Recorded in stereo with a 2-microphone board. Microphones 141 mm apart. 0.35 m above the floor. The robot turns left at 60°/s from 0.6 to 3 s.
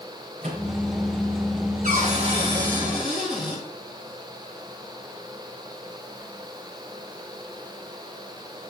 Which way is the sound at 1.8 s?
105° right.